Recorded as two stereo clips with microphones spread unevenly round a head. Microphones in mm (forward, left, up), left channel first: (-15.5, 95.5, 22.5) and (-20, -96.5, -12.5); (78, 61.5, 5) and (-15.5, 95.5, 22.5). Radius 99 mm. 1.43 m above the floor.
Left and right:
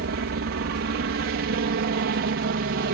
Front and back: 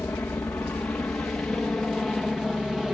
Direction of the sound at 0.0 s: 95° right.